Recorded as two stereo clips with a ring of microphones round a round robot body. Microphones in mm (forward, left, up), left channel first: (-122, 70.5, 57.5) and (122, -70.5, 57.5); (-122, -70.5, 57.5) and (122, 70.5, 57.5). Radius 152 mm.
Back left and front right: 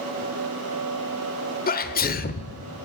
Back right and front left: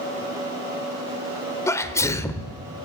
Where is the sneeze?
140° left, 1.0 m.